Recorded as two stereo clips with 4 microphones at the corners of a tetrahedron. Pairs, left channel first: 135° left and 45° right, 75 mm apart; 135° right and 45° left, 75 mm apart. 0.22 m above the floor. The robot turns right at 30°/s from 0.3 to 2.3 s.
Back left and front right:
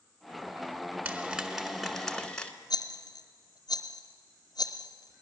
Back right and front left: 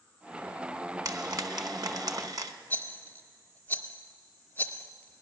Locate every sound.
1.1 s frying: 20° left, 0.9 m; by 2.5 s 60° left, 0.9 m
2.7 s a rattle: 155° left, 0.7 m